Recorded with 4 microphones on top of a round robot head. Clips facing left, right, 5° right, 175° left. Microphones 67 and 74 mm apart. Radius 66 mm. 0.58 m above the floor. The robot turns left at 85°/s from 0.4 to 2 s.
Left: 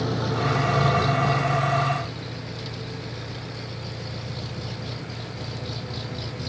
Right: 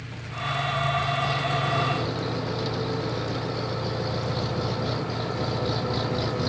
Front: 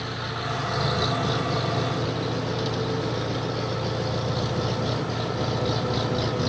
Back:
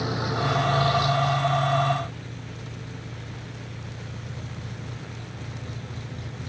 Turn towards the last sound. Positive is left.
turn(degrees=-35)